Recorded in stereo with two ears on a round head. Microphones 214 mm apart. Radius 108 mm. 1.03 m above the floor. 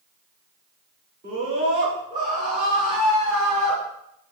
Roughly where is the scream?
Right.